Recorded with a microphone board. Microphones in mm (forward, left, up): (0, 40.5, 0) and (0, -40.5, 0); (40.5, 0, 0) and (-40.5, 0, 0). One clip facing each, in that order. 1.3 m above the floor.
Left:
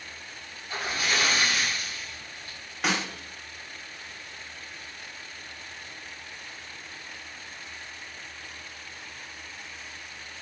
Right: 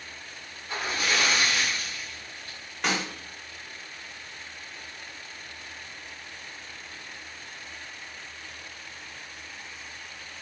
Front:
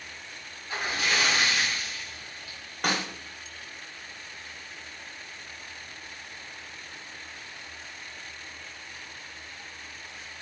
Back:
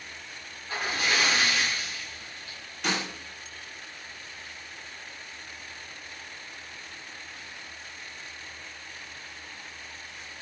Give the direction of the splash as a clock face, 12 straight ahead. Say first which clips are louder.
Right 1 dB, even; 5 o'clock.